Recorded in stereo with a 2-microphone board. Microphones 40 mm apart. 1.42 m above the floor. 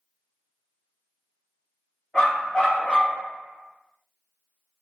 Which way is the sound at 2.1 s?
15° left (ahead or behind).